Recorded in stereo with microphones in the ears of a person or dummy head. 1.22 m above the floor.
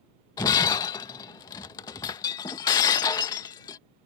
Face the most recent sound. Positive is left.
turn(degrees=20)  # may be behind; listen again after turning